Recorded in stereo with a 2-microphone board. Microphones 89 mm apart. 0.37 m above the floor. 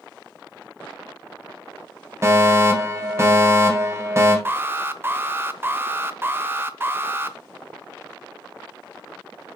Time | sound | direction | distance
2.2 | a fire alarm | 30° right (ahead or behind) | 2.5 m
4.5 | an alarm | 25° right (ahead or behind) | 0.7 m